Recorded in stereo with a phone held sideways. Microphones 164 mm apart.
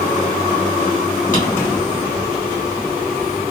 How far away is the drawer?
About 2.0 m.